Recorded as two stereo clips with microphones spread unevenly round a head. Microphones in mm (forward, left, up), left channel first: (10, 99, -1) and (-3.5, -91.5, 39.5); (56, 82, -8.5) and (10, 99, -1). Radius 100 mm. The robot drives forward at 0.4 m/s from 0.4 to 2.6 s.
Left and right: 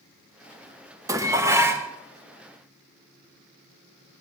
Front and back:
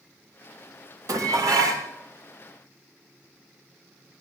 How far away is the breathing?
I don't hear breathing.